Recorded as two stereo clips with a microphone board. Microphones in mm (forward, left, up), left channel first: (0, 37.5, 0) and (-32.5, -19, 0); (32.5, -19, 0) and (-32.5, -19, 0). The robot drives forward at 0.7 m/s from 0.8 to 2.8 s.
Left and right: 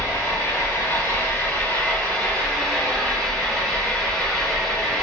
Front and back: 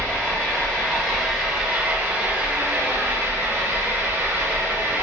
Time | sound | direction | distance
0.0 | an engine running | 70° left | 1.4 m